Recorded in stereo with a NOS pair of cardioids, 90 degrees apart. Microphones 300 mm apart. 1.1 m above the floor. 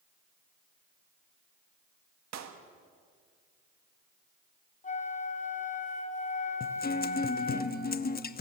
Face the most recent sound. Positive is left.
turn(degrees=30)